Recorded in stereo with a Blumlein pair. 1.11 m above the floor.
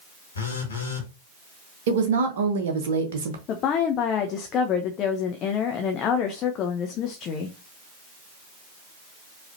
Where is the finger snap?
I don't hear a finger snap.